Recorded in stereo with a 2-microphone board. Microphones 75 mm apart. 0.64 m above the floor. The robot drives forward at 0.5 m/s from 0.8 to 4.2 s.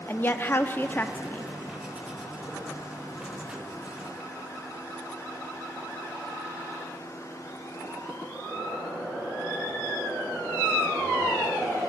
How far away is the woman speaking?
About 0.8 m.